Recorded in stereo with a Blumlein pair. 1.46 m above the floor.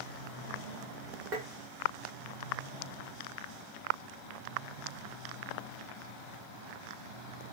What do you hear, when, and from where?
1.3 s tapping: 40° right, 1.4 m